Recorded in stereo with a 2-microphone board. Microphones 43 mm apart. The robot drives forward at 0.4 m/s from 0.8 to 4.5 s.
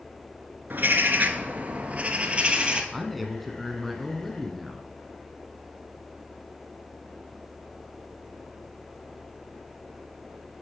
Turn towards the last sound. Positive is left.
turn(degrees=0)  # may be behind; listen again after turning